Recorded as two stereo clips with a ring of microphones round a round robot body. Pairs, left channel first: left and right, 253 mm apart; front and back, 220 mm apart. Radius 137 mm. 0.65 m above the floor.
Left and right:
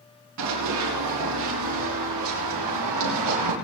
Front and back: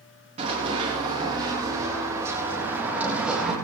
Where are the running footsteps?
115° right, 7.5 m; by 3.5 s 90° right, 6.5 m.